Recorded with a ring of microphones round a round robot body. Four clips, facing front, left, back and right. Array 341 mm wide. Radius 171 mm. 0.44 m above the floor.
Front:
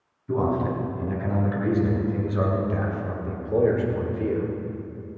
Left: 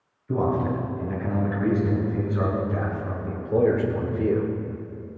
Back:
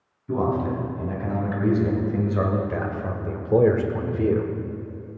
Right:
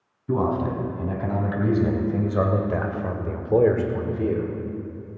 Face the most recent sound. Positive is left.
turn(degrees=155)